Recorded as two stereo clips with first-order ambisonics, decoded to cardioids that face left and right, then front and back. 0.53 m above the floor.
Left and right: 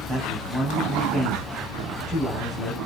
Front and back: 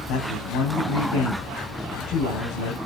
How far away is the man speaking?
About 3.5 m.